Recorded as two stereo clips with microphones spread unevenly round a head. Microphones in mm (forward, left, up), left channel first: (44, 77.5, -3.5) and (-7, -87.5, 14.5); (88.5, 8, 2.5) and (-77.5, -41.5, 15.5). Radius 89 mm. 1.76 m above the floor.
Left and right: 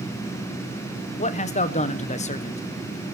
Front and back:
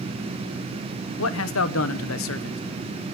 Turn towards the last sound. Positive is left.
turn(degrees=20)